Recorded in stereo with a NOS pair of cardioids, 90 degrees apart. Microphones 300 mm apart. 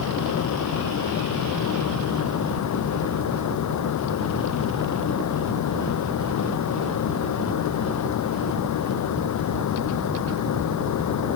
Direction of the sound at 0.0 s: 70° left.